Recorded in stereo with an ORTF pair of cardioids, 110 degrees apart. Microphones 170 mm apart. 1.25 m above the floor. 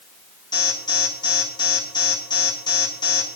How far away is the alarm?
About 8 m.